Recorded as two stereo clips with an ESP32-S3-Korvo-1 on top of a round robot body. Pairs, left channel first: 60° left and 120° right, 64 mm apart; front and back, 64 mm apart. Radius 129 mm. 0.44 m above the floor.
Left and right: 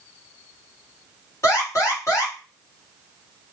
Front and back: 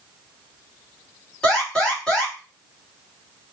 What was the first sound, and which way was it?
An alarm, 75° left.